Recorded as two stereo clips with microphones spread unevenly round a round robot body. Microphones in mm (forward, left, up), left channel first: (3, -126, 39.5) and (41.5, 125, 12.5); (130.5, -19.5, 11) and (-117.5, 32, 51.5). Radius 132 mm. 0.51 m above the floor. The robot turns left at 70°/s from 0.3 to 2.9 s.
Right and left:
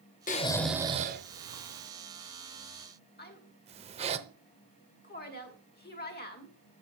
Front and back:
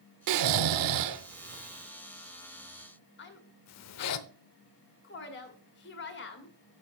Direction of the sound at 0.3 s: 165° right.